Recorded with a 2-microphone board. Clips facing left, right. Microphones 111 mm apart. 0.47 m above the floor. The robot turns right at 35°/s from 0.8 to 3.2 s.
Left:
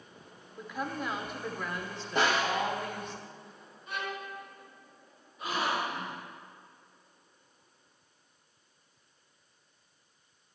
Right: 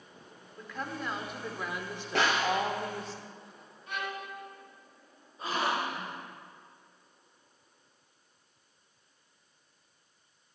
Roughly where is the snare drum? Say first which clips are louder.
Even; right.